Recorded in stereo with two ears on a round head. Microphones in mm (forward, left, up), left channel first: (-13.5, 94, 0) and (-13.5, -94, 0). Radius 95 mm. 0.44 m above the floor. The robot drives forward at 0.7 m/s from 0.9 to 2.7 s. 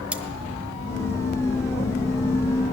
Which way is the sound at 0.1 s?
5° right (ahead or behind).